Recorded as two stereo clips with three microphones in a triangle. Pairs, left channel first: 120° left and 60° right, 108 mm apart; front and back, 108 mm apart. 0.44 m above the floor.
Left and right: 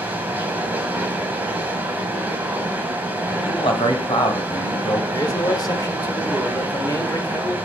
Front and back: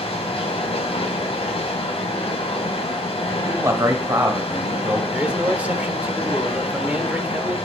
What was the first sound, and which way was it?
Running water, 15° left.